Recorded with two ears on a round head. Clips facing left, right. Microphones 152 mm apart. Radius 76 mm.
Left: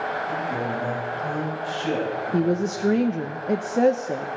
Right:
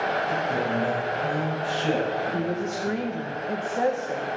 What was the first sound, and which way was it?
A man speaking, 25° right (ahead or behind).